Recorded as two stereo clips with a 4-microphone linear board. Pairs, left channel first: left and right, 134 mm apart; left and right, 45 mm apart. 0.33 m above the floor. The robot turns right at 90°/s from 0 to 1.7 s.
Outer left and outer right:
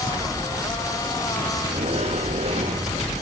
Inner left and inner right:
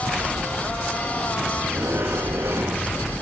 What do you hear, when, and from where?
1.6 s a sliding door: 40° right (ahead or behind), 7 m; by 3.0 s 55° right (ahead or behind), 7 m